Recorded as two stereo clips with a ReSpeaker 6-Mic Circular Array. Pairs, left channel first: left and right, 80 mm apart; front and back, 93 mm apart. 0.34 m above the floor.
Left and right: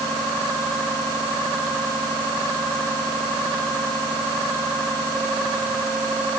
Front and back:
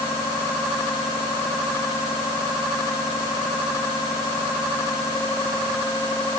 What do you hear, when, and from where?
Only background noise.